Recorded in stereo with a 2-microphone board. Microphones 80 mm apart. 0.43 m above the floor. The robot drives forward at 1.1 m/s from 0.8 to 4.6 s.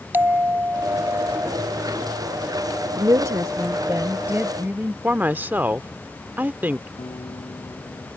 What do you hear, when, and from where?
0.1 s a bell: 25° right (ahead or behind); by 1.5 s 40° right (ahead or behind)
3.0 s a woman speaking: 50° right (ahead or behind); by 4.9 s 25° right (ahead or behind)
5.0 s a woman speaking: 25° right (ahead or behind)
7.0 s a guitar: 75° left (ahead or behind)